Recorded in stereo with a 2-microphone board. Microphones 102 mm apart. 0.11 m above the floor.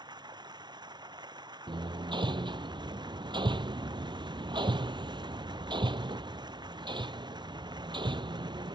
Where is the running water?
45° right (ahead or behind).